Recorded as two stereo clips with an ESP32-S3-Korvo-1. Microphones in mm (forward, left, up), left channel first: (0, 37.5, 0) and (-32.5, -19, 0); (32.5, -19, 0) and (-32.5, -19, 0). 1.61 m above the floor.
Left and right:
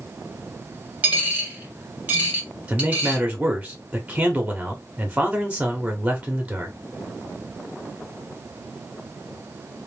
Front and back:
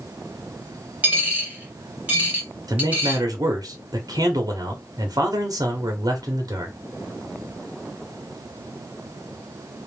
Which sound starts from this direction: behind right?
A dropped coin, at 1.0 s.